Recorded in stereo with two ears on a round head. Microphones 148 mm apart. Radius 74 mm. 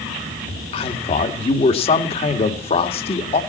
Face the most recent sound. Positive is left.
turn(degrees=35)  # may be behind; listen again after turning